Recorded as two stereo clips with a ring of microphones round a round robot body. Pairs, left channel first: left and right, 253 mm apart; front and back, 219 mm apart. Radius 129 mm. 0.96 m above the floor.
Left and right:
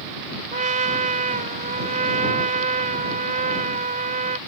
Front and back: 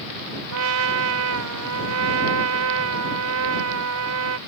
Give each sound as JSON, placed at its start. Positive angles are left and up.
{"t": 0.5, "sound": "a trumpet", "azimuth_deg": -150}